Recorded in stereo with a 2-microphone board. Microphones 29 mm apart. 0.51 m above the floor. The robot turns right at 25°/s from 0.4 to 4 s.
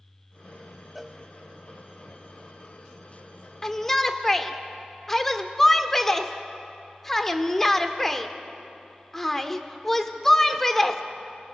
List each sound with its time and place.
0.9 s a cowbell: 5° right (ahead or behind), 0.8 m; by 1.2 s 10° right (ahead or behind), 0.8 m
3.6 s a shout: 20° left (ahead or behind), 1.1 m; by 11.0 s 10° left (ahead or behind), 1.1 m